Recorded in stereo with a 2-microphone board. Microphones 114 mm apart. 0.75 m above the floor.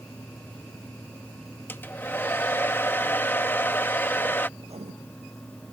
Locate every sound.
1.7 s a hair dryer: 20° left (ahead or behind)
4.6 s writing: 65° right (ahead or behind)